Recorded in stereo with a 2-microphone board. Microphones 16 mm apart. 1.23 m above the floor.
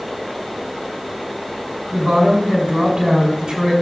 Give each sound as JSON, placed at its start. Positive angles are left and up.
{"t": 1.9, "sound": "a woman speaking", "side_deg": -65, "distance_m": 4.5}